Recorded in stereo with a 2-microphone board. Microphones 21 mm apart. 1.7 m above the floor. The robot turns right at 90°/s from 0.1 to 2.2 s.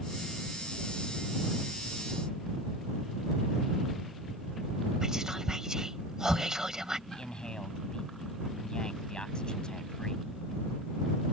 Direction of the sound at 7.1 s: 40° left (ahead or behind).